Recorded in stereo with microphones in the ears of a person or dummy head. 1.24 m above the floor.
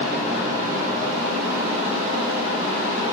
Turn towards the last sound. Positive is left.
turn(degrees=-20)  # may be behind; listen again after turning